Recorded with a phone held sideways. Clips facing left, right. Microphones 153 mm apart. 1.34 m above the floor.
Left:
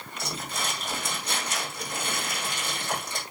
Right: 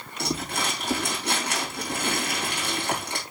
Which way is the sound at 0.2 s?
70° right (ahead or behind).